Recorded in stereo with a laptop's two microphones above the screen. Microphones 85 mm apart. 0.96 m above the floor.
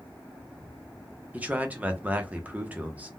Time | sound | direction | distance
1.3 | a man speaking | 20° right (ahead or behind) | 0.5 m